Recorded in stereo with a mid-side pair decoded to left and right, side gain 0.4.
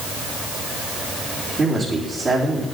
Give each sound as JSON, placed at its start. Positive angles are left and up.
{"t": 1.6, "sound": "a man speaking", "azimuth_deg": -50, "distance_m": 4.0}